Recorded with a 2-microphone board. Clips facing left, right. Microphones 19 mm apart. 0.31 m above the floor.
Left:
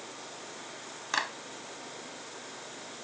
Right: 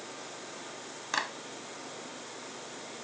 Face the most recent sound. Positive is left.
turn(degrees=10)  # may be behind; listen again after turning